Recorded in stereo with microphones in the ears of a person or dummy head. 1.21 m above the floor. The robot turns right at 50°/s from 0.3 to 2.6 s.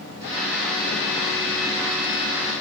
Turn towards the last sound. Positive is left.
No sound to turn to.